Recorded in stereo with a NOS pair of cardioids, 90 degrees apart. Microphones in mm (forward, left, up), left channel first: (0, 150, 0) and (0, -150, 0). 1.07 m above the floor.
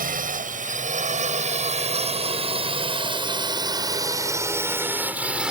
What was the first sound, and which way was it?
A drone, 30° right.